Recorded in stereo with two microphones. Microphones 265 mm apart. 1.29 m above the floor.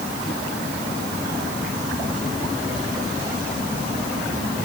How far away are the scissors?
No scissors in this recording.